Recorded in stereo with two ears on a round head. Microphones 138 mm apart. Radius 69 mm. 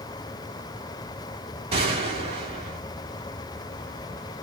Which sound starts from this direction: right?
A gunshot, at 1.7 s.